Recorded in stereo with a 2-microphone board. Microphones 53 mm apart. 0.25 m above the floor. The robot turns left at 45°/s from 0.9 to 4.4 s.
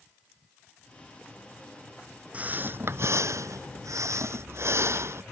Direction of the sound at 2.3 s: 25° right.